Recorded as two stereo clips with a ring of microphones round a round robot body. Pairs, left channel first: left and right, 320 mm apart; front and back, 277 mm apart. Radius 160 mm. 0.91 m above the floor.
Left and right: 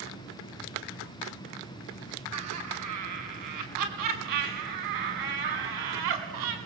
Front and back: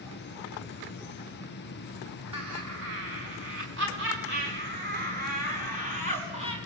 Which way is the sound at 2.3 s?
130° right.